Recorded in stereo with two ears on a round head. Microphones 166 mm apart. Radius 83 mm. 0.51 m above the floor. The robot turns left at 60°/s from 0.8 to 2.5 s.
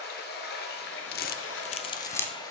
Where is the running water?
120° left, 1.5 m; by 2.5 s 20° left, 1.5 m.